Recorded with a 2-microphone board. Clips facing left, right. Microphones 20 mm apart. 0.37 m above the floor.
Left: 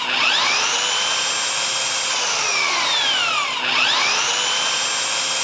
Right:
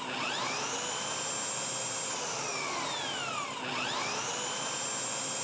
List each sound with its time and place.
0.0 s an engine running: 80° left